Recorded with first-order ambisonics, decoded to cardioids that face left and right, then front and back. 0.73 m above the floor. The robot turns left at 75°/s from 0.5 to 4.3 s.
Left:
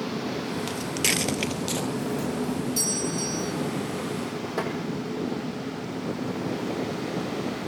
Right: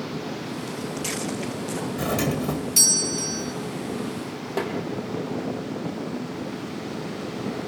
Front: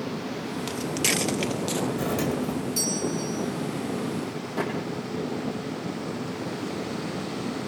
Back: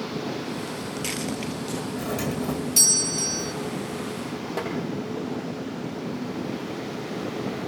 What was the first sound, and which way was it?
Footsteps, 50° left.